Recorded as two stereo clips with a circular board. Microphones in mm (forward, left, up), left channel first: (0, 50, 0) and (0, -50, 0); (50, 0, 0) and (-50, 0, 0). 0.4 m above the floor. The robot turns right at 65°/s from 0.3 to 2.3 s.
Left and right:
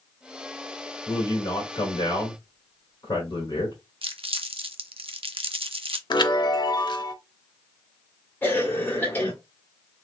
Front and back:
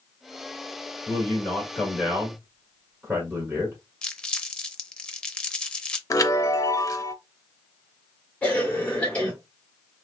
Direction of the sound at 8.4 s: 55° left.